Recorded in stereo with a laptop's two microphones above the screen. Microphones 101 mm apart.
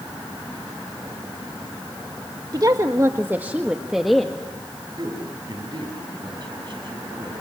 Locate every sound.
2.5 s a woman speaking: 40° right (ahead or behind), 1.4 m; by 4.5 s 5° left (ahead or behind), 1.6 m
5.0 s a man speaking: 45° right (ahead or behind), 7.5 m